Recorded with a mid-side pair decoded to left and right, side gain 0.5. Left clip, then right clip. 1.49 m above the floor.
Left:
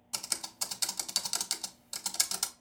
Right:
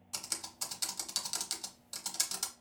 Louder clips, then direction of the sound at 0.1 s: Left 4 dB; 25° left.